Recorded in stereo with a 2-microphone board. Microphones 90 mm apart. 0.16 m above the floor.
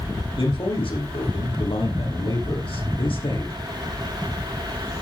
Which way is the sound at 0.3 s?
80° left.